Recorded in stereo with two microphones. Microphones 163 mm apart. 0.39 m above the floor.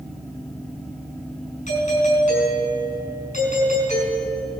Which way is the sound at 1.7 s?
50° left (ahead or behind).